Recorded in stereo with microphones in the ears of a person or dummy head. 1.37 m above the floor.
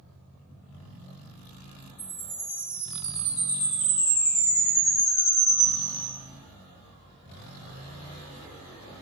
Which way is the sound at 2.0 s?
65° left (ahead or behind).